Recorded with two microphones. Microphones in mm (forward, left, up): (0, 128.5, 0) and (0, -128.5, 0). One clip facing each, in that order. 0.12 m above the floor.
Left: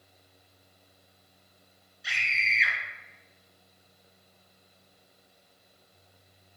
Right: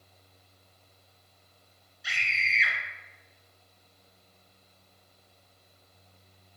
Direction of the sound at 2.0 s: Centre (ahead or behind).